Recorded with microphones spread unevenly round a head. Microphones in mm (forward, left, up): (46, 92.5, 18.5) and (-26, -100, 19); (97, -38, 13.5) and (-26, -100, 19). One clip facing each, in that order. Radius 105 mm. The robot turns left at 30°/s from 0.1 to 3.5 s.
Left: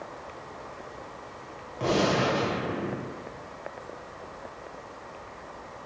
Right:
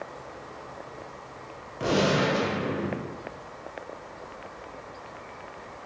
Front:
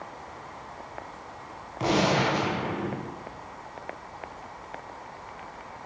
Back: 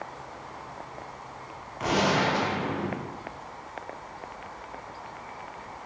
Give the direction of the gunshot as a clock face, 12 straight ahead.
1 o'clock.